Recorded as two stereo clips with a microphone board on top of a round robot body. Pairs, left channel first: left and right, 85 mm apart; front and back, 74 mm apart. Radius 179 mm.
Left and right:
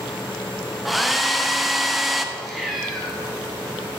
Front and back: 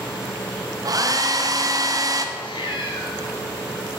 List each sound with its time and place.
0.8 s a hair dryer: straight behind, 1.2 m
2.4 s a cat meowing: straight ahead, 1.1 m